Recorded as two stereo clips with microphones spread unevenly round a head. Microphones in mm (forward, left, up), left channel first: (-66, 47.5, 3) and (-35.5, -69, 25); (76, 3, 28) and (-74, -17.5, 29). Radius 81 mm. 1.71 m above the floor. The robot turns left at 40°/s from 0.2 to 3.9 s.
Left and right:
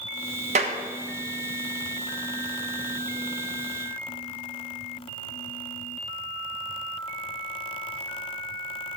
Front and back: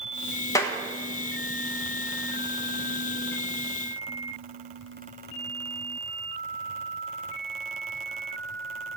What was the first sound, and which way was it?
A clap, 60° right.